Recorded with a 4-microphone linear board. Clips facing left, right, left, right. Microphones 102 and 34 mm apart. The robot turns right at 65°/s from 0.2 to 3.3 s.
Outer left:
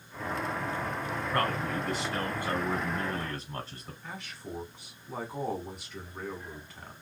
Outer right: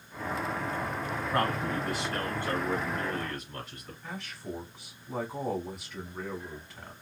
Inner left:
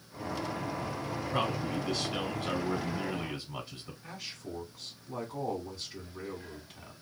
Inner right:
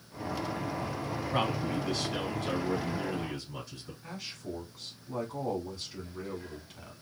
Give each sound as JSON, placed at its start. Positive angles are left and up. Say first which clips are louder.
{"t": 1.3, "sound": "a man speaking", "louder": "outer right 1 dB, inner right 1 dB", "azimuth_deg": -45, "distance_m": 1.4}
{"t": 4.0, "sound": "a man speaking", "louder": "outer right 3 dB, inner right 2 dB", "side_deg": 0, "distance_m": 1.3}